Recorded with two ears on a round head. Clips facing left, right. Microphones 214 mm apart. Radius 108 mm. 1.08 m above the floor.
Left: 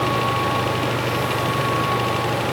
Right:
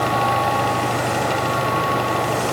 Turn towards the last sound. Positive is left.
No sound to turn to.